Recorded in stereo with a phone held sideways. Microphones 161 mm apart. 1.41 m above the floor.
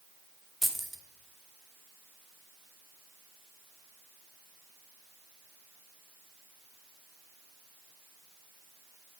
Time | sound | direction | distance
0.6 | keys jangling | centre (ahead or behind) | 0.6 m